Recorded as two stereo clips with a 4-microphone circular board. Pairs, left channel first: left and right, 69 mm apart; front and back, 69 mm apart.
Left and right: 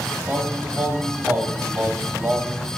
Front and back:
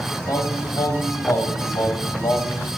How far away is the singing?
About 3 m.